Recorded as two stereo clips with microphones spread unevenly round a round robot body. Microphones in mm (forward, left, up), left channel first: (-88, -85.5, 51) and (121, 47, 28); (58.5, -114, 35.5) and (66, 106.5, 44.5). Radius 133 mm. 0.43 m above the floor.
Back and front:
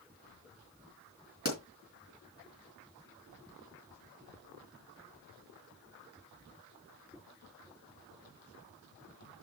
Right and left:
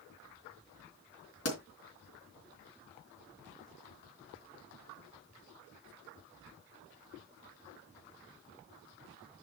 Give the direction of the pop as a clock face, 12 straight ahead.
3 o'clock.